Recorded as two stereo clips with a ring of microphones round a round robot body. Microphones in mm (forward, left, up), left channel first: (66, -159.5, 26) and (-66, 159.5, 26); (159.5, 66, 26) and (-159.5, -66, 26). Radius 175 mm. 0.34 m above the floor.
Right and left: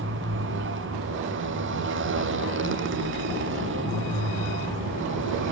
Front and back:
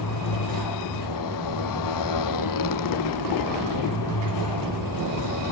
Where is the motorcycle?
55° left.